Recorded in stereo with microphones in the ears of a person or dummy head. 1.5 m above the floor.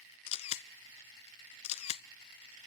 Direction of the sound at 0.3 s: 30° left (ahead or behind).